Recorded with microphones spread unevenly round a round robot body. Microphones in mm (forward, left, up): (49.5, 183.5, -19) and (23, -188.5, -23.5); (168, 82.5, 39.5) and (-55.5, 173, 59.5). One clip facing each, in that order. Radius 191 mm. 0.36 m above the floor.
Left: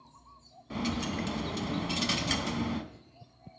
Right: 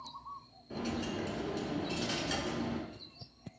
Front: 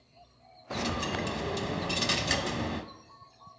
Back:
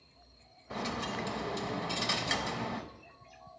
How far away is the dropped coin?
About 0.7 m.